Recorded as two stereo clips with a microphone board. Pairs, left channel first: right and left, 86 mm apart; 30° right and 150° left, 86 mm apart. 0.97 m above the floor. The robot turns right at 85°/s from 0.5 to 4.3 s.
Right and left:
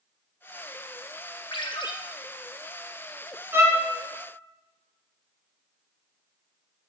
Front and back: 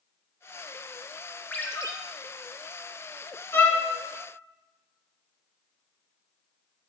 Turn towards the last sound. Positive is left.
turn(degrees=95)